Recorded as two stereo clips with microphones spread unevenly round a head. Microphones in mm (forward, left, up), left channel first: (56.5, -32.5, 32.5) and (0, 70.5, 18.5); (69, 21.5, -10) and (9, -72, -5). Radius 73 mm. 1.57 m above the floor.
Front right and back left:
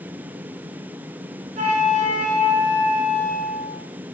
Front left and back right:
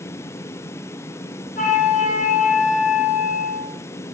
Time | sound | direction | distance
1.6 | a flute | 90° left | 2 m